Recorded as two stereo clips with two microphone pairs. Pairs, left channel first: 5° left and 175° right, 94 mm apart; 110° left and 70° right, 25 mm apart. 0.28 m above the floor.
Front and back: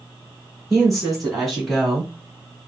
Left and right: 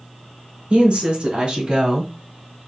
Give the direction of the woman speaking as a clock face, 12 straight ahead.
3 o'clock.